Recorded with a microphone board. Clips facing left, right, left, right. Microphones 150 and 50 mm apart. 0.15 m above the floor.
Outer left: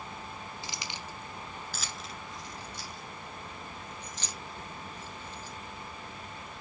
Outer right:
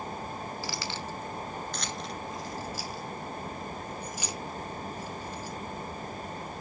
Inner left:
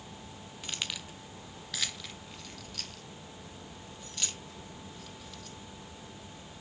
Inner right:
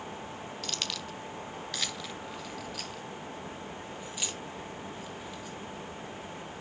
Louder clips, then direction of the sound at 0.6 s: Outer right 6 dB, even; 20° left (ahead or behind).